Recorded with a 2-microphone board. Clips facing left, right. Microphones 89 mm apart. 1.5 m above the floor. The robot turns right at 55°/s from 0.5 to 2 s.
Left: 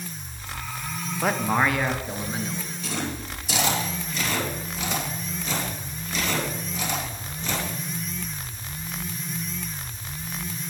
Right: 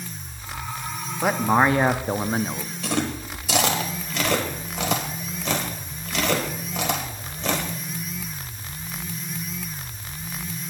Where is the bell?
I don't hear a bell.